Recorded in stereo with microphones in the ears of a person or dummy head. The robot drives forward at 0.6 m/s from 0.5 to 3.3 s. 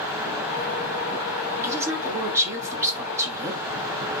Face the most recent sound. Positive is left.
turn(degrees=-15)  # may be behind; listen again after turning